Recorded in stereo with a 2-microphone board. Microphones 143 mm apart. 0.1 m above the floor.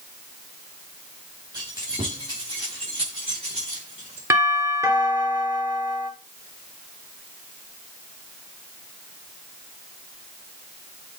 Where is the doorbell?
20° right (ahead or behind), 2 m.